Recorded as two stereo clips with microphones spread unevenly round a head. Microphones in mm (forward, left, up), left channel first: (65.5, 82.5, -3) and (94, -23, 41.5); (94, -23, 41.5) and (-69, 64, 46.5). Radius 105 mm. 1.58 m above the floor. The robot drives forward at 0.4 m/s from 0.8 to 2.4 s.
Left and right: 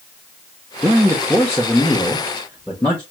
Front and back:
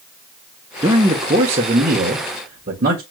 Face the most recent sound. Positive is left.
turn(degrees=-160)